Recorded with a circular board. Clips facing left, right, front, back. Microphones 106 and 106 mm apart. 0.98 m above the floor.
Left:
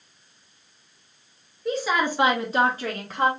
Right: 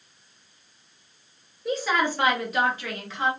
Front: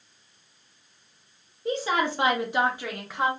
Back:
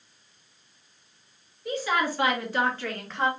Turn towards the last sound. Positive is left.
turn(degrees=80)